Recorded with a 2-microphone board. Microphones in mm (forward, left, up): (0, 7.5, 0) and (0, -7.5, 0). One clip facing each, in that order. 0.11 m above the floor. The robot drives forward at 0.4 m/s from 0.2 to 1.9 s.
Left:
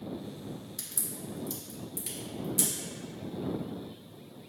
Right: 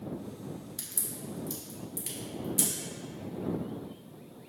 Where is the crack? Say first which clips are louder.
Even; centre (ahead or behind), 0.8 m.